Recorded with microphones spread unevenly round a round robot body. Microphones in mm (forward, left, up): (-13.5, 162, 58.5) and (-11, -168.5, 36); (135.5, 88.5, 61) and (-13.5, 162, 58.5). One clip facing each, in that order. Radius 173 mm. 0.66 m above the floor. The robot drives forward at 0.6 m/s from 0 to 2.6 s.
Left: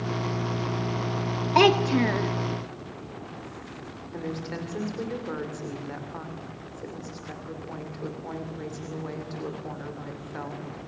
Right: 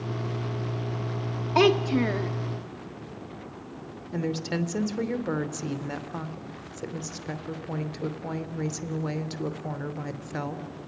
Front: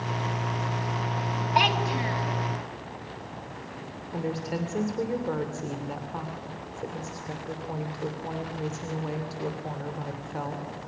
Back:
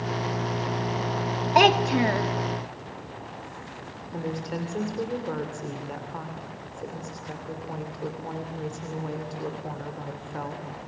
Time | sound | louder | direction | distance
1.6 | a child speaking | even, back 8 dB | straight behind | 0.9 m
4.1 | a woman speaking | right 5 dB, front 1 dB | 115° right | 3 m